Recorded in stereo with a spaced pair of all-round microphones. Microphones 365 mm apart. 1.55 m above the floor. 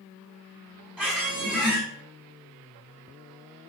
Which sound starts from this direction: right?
A squeak, at 1.0 s.